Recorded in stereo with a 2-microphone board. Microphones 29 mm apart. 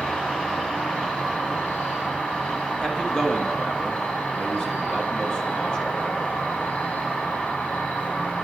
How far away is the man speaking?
About 1.5 m.